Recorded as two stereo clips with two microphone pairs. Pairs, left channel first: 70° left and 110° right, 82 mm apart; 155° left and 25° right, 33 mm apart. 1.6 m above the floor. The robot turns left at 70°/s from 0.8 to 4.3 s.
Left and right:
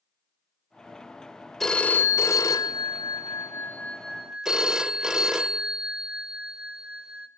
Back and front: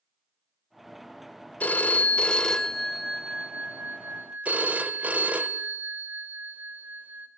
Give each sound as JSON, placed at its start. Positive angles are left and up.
{"t": 1.6, "sound": "a phone ringing", "azimuth_deg": 160, "distance_m": 0.8}